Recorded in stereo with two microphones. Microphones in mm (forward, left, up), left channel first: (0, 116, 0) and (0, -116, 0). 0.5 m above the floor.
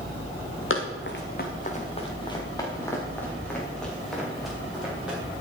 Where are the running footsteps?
65° left (ahead or behind), 1.6 m; by 5.2 s 5° right (ahead or behind), 5 m.